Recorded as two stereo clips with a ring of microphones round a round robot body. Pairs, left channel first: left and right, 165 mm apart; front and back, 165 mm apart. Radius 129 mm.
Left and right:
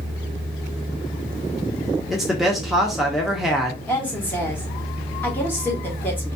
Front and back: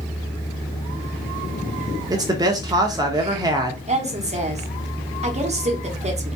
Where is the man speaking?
Straight behind, 0.8 m.